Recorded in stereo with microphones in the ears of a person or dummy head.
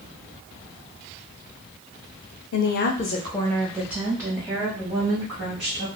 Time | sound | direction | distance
2.5 | a woman speaking | 70° left (ahead or behind) | 0.6 m